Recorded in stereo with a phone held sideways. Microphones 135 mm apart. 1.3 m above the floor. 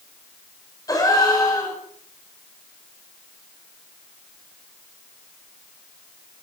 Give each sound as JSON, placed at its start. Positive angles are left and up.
{"t": 0.9, "sound": "a gasp", "side_deg": 25, "distance_m": 5.0}